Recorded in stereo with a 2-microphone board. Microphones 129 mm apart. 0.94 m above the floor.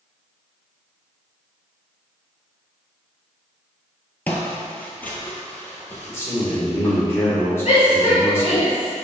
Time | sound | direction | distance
4.3 | footsteps | 10° left (ahead or behind) | 1.0 m
6.1 | a man speaking | 20° left (ahead or behind) | 2 m
7.7 | a shout | 60° left (ahead or behind) | 1.9 m